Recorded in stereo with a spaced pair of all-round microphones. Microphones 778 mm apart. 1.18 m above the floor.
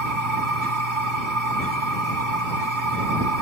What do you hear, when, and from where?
0.0 s a machine running: 85° right